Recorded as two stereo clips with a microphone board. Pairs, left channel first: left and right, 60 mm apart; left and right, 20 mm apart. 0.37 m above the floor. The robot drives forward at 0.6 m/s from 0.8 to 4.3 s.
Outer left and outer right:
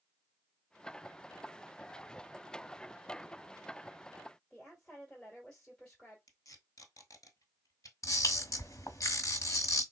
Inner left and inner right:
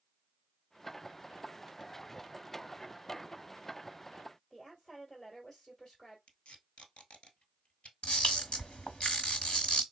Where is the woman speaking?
15° left (ahead or behind), 1.4 m.